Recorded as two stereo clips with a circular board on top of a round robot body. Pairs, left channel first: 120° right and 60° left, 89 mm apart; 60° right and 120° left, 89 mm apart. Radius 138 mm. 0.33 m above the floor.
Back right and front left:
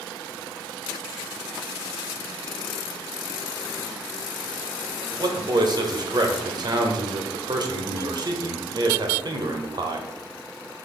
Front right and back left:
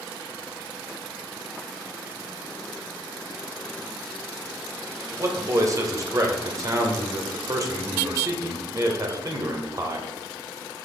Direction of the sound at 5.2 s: 80° left.